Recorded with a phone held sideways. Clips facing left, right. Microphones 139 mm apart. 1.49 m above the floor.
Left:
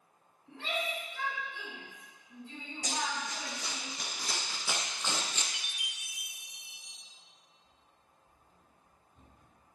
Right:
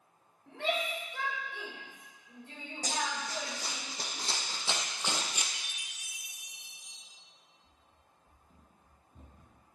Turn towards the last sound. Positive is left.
turn(degrees=-55)  # may be behind; listen again after turning